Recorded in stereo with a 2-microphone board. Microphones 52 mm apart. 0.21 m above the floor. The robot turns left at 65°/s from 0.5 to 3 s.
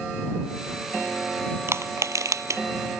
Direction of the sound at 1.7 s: 55° right (ahead or behind).